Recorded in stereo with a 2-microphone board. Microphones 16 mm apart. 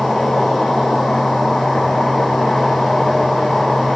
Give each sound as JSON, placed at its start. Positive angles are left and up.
{"t": 0.0, "sound": "an insect", "side_deg": 85, "distance_m": 9.5}